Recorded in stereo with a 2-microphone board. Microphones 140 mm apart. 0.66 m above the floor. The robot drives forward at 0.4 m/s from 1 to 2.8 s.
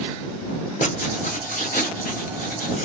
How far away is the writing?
About 0.9 m.